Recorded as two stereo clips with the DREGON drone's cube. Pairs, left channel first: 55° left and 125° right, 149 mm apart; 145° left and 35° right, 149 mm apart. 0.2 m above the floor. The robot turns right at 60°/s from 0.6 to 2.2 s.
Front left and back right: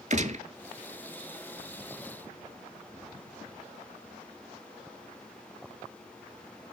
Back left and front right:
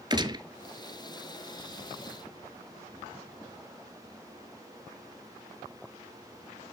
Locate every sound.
0.1 s a gunshot: 95° right, 0.8 m